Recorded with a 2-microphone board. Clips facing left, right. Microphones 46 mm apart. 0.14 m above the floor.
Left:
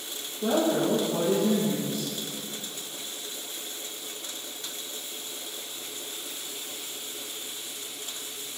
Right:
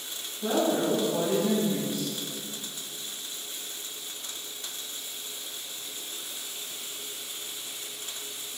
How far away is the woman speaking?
About 3.5 m.